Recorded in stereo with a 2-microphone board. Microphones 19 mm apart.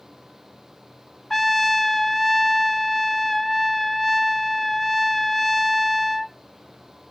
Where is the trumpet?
10° left (ahead or behind), 0.5 m.